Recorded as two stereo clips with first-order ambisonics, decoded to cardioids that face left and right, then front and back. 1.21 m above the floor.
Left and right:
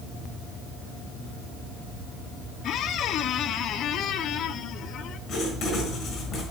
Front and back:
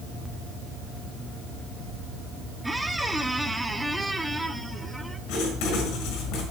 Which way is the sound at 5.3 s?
30° left.